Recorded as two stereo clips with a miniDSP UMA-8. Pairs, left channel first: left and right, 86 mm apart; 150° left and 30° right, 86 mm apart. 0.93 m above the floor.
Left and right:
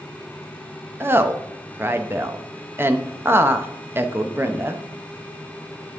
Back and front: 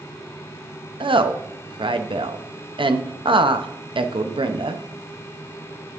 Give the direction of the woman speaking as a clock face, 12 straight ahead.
1 o'clock.